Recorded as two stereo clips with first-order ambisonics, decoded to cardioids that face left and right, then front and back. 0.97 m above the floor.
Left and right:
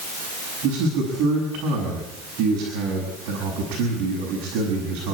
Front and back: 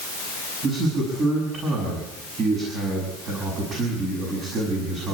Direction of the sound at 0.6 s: 120° right.